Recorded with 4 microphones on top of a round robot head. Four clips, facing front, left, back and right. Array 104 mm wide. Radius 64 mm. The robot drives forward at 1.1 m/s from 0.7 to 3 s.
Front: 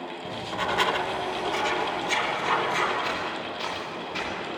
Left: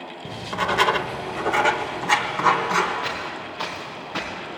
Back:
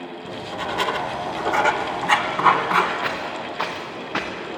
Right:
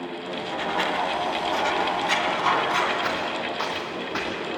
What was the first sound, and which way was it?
Writing, 90° left.